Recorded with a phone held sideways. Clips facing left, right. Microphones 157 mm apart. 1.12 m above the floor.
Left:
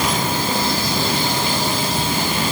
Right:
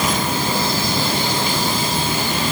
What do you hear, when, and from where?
Only background noise.